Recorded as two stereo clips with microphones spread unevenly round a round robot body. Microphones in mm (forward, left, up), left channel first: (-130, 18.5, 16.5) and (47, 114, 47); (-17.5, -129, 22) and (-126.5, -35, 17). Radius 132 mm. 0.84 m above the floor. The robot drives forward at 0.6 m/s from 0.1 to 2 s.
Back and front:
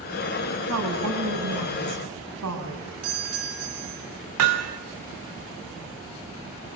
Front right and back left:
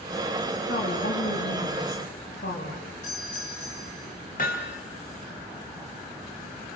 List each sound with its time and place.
0.7 s a woman speaking: straight ahead, 7 m
3.0 s a doorbell: 15° left, 8 m
4.4 s hammering: 20° left, 2.0 m